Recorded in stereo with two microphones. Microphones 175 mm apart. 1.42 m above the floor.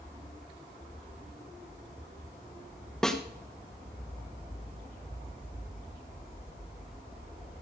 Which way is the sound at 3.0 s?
5° left (ahead or behind).